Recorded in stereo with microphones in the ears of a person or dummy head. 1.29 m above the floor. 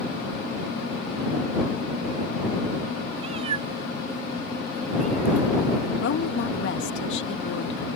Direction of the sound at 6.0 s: 85° left.